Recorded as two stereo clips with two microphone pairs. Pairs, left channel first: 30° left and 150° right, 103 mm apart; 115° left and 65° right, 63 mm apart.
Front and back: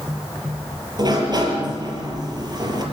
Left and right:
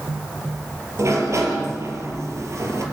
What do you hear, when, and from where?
1.0 s a sliding door: 105° right, 4.5 m